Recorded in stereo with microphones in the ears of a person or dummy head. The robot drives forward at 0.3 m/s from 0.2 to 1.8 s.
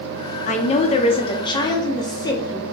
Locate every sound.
0.5 s a woman speaking: 35° left (ahead or behind), 0.6 m; by 2.6 s 25° left (ahead or behind), 0.9 m